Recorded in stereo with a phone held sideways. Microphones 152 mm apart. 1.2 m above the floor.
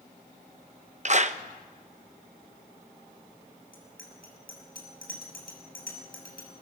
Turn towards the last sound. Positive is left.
turn(degrees=70)  # may be behind; listen again after turning